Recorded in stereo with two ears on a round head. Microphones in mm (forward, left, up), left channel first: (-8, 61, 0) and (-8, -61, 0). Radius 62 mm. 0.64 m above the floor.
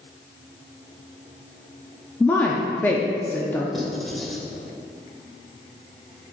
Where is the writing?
Centre (ahead or behind), 1.1 m.